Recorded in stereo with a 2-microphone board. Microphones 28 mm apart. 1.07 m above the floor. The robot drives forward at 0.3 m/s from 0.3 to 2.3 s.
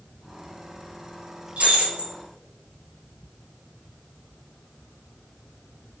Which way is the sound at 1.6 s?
60° right (ahead or behind).